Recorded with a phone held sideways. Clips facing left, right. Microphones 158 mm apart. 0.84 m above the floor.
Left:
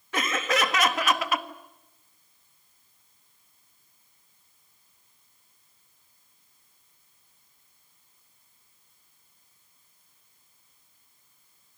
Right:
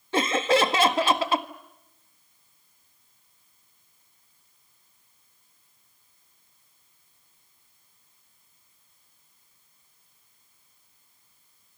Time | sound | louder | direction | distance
0.1 | laughter | right 6 dB | 30° right (ahead or behind) | 1.5 m